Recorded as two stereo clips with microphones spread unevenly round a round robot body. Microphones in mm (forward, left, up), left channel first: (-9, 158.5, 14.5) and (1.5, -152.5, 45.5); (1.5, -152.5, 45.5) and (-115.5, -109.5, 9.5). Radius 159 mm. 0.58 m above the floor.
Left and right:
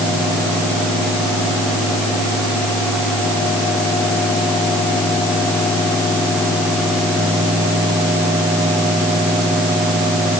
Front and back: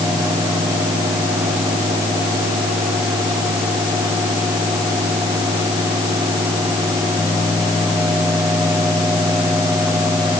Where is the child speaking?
I don't hear a child speaking.